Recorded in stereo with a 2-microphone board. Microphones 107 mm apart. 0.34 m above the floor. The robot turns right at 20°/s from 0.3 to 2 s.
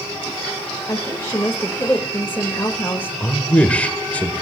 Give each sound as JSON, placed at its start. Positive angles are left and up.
{"t": 0.9, "sound": "a woman speaking", "side_deg": 20, "distance_m": 1.3}
{"t": 3.2, "sound": "a man speaking", "side_deg": 15, "distance_m": 1.0}